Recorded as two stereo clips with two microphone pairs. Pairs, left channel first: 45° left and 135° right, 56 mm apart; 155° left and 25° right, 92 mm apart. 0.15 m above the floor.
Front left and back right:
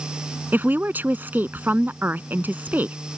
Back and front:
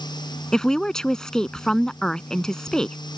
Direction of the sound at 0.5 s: 125° right.